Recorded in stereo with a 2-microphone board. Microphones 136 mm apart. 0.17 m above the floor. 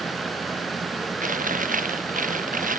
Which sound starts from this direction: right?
Chewing, at 1.2 s.